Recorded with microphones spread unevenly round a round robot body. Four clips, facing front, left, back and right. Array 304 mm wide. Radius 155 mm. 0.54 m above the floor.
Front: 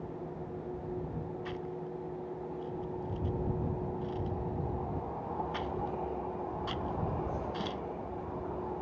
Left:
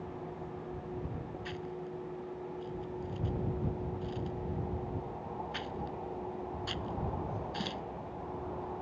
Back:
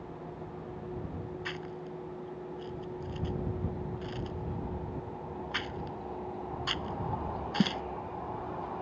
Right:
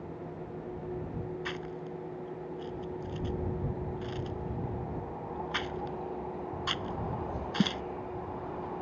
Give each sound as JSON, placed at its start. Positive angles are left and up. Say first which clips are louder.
{"t": 1.4, "sound": "chewing", "louder": "right 2 dB, front 1 dB", "azimuth_deg": -140}